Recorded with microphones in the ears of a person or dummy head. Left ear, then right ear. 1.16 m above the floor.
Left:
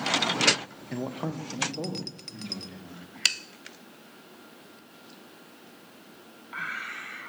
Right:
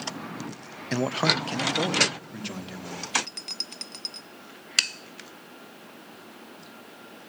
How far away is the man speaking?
About 0.7 m.